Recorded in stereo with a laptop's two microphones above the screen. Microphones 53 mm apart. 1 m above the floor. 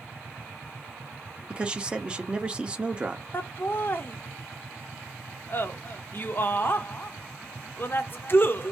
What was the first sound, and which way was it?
A man speaking, 20° right (ahead or behind).